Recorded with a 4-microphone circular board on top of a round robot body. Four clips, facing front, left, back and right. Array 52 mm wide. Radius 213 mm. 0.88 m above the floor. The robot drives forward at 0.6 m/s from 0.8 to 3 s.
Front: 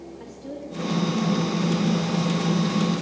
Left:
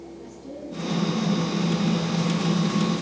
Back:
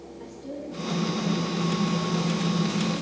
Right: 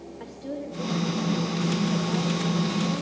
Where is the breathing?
No breathing in this recording.